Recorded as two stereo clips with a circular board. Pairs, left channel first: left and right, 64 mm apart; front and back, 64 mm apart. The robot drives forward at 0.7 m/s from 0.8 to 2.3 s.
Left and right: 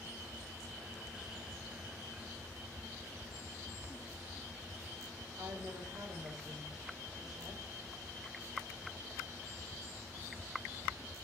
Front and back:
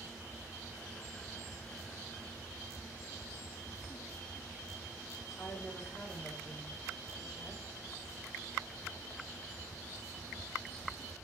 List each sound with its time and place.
5.4 s a woman speaking: 75° right, 6 m